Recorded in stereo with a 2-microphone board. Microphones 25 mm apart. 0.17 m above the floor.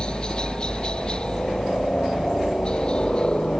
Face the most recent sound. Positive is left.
turn(degrees=45)  # may be behind; listen again after turning